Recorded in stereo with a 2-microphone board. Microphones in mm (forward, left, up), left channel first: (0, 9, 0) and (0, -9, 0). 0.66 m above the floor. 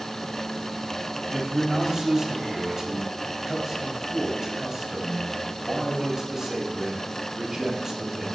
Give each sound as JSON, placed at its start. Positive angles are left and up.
{"t": 1.3, "sound": "a man speaking", "side_deg": -20, "distance_m": 3.5}